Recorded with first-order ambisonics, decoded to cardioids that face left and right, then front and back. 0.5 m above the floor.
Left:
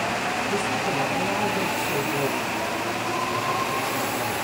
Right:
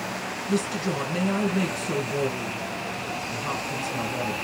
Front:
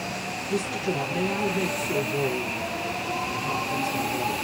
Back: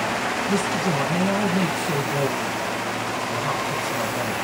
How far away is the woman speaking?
About 2.5 m.